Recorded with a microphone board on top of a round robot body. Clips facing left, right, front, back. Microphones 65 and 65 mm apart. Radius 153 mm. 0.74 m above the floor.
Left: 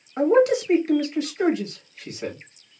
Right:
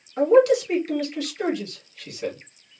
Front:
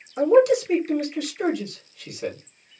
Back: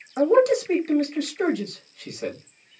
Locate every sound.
0.2 s a man speaking: 155° left, 1.3 m